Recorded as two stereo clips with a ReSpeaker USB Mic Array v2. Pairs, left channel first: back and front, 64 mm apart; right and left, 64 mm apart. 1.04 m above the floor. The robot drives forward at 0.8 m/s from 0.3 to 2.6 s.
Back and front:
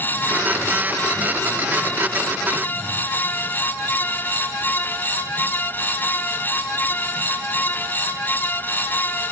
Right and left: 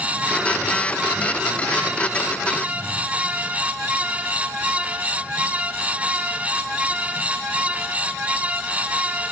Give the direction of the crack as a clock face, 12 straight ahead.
No crack in this recording.